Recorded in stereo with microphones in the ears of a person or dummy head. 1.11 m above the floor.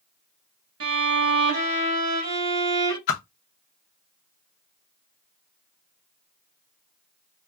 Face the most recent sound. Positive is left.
turn(degrees=45)  # may be behind; listen again after turning